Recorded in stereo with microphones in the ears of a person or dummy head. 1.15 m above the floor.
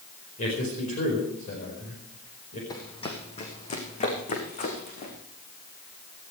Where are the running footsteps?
20° left (ahead or behind), 2 m; by 5.1 s 45° left (ahead or behind), 5 m.